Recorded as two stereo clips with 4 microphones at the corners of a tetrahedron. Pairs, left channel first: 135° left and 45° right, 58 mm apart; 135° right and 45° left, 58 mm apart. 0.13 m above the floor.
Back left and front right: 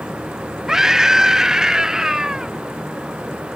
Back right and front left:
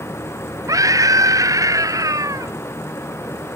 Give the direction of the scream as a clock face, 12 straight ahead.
11 o'clock.